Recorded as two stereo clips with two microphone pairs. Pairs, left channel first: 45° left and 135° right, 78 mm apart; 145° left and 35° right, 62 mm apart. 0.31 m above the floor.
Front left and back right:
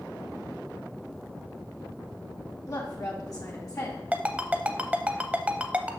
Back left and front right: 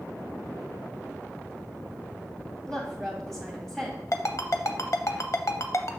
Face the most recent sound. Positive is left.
turn(degrees=155)